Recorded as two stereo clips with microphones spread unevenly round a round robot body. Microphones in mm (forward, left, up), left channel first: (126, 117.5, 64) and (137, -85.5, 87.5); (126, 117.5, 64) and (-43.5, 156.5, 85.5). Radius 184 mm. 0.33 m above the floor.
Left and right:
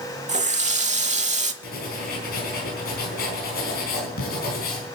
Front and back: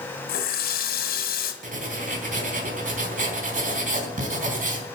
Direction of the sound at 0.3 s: 30° right.